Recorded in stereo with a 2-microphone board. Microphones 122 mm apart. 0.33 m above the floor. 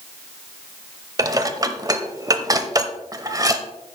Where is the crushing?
I don't hear crushing.